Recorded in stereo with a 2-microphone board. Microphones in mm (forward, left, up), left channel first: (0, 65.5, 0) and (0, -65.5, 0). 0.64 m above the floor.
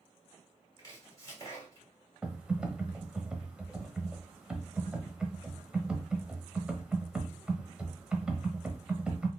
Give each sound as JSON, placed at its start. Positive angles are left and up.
{"t": 0.8, "sound": "chopping", "side_deg": 25, "distance_m": 2.0}
{"t": 2.2, "sound": "typing on a keyboard", "side_deg": -10, "distance_m": 0.8}